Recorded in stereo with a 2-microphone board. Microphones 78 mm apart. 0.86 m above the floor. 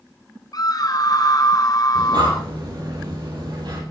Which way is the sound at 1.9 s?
65° right (ahead or behind).